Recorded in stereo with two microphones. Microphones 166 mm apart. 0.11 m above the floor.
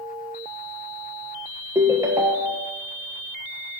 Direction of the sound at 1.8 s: 20° right (ahead or behind).